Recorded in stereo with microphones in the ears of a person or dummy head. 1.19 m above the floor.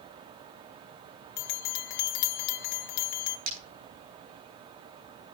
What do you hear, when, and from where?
1.4 s a bell: 55° left (ahead or behind), 1.2 m
3.5 s breaking glass: 70° right (ahead or behind), 8 m